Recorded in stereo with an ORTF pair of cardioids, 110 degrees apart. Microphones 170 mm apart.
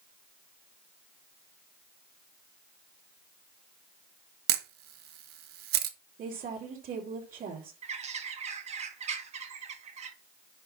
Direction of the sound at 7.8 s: 40° right.